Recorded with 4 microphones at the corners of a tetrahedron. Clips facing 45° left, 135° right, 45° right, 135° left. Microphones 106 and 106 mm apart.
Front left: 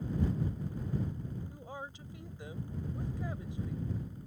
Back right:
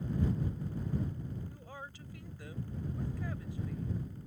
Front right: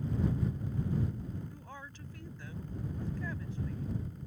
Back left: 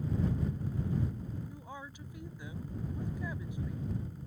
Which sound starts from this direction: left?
A woman speaking, at 1.5 s.